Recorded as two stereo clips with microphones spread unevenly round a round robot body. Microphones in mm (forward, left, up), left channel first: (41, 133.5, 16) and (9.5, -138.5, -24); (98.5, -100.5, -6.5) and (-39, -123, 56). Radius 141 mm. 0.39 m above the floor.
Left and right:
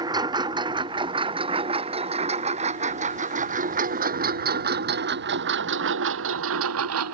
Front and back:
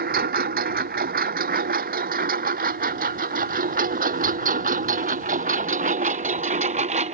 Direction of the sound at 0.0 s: 175° right.